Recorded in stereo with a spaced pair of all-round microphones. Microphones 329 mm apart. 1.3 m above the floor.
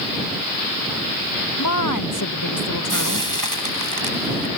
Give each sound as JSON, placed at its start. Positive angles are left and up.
{"t": 1.6, "sound": "a woman speaking", "side_deg": 65}
{"t": 2.9, "sound": "frying", "side_deg": -75}